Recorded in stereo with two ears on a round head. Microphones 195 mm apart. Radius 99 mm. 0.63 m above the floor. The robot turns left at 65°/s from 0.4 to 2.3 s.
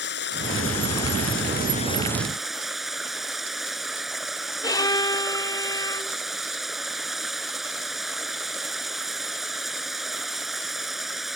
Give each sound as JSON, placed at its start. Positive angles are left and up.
{"t": 0.0, "sound": "running water", "azimuth_deg": 120}
{"t": 4.6, "sound": "a violin", "side_deg": 20}